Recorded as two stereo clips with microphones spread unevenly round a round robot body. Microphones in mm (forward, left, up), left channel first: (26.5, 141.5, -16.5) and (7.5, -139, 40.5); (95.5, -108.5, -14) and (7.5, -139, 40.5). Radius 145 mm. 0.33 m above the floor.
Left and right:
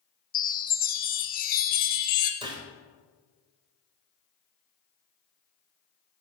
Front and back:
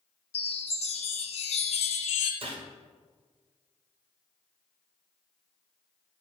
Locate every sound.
0.3 s a chime: 25° left, 0.7 m
2.4 s a gunshot: 175° right, 1.1 m